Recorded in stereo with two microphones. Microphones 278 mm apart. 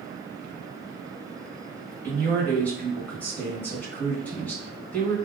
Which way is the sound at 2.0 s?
5° left (ahead or behind).